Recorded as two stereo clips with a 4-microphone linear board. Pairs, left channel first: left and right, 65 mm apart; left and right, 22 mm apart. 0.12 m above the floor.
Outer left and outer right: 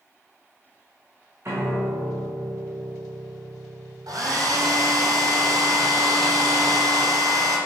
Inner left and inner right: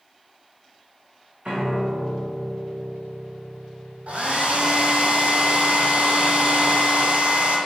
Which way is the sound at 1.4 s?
40° right (ahead or behind).